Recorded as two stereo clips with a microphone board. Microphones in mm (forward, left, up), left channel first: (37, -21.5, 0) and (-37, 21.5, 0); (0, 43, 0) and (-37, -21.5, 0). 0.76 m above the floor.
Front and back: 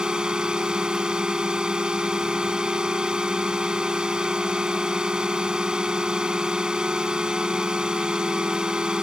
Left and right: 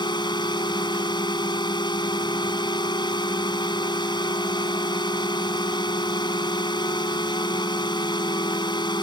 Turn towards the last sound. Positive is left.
turn(degrees=70)